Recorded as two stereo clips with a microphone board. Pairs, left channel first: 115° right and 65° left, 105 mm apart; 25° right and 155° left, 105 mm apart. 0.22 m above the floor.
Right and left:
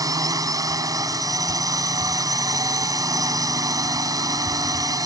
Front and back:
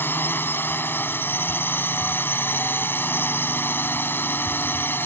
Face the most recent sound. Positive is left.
turn(degrees=35)